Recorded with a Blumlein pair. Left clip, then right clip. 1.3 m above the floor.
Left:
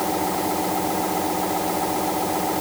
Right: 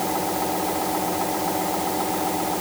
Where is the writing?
No writing in this recording.